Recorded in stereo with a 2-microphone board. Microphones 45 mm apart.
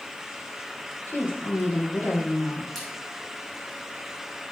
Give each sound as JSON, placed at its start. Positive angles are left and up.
{"t": 1.1, "sound": "a woman speaking", "side_deg": 70, "distance_m": 4.0}
{"t": 2.8, "sound": "a splash", "side_deg": 10, "distance_m": 4.5}